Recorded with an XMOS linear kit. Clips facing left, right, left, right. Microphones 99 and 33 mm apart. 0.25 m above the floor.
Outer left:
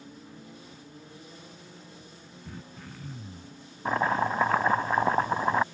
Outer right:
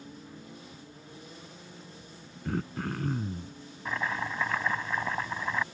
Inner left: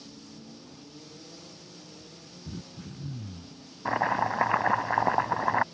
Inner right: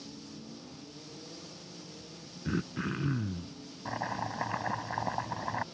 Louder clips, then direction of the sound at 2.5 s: Outer right 13 dB, inner right 10 dB; 70° right (ahead or behind).